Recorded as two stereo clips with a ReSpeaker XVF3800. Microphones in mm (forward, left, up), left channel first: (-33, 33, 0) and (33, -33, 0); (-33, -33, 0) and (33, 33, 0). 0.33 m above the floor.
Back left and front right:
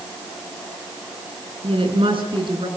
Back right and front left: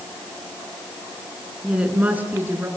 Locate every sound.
1.6 s a woman speaking: 35° right, 4.5 m; by 2.7 s 20° right, 4.5 m